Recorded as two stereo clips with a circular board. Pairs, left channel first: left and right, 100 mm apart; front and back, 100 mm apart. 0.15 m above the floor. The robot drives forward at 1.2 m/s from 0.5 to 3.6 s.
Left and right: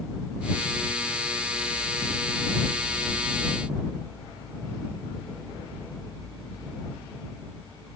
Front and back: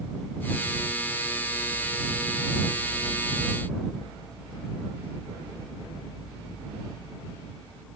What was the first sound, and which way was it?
Only background noise.